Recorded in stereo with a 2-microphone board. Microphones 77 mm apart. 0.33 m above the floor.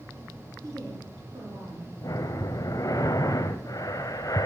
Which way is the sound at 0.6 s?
50° right (ahead or behind).